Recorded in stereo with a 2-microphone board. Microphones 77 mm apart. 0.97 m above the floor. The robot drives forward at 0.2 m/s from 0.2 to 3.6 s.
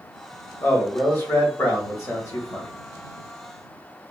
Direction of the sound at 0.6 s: 30° left (ahead or behind).